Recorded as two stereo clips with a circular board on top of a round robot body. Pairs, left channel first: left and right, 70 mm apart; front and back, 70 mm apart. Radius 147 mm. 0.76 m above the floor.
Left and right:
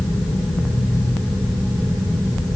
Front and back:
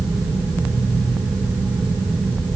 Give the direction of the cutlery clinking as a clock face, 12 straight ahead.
No cutlery clinking in this recording.